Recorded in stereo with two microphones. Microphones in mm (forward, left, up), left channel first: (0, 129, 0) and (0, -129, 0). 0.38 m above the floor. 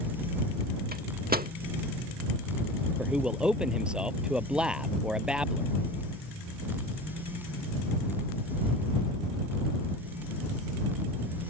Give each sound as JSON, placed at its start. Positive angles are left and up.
{"t": 0.9, "sound": "a microwave", "side_deg": -35}
{"t": 3.0, "sound": "a man speaking", "side_deg": -5}